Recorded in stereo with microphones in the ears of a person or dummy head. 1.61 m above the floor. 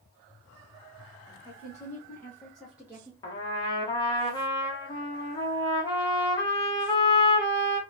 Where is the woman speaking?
20° left (ahead or behind), 1.7 m; by 3.1 s 15° right (ahead or behind), 0.9 m.